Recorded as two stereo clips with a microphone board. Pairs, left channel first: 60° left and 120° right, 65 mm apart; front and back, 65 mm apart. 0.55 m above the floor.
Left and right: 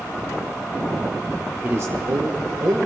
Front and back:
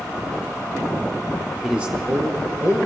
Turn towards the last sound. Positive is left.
turn(degrees=-140)